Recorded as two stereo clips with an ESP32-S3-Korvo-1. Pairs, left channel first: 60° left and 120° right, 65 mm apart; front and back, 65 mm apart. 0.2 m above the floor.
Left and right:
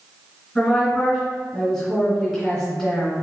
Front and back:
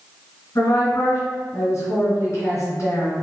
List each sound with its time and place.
0.6 s a woman speaking: 25° right, 1.9 m